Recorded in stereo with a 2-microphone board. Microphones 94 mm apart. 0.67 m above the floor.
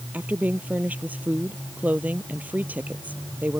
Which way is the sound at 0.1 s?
15° right (ahead or behind).